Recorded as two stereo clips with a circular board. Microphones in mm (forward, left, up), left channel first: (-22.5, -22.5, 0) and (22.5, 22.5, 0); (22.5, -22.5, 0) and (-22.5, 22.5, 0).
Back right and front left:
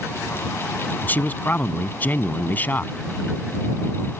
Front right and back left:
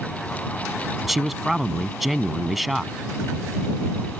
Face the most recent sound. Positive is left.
turn(degrees=-140)